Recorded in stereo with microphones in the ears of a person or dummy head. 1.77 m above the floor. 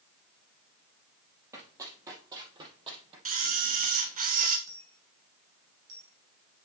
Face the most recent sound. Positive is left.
turn(degrees=-60)  # may be behind; listen again after turning